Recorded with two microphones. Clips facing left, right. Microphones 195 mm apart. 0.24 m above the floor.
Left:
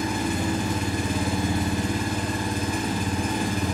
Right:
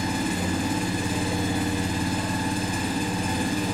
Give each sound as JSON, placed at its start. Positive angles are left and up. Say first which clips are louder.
{"t": 0.0, "sound": "an engine running", "louder": "left 1 dB", "side_deg": 65, "distance_m": 0.8}